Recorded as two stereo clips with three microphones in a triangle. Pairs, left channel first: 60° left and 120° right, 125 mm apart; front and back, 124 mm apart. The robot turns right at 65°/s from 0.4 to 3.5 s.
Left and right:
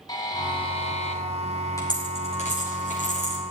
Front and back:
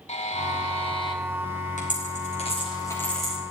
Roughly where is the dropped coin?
Ahead.